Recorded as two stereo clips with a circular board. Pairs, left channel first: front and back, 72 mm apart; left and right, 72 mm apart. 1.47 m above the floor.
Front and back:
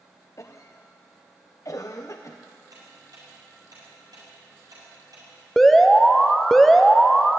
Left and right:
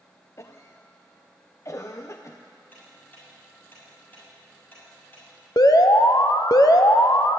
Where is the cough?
40° left, 0.8 m.